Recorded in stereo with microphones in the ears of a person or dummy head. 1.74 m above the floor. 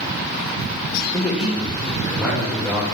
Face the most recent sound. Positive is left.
turn(degrees=-15)  # may be behind; listen again after turning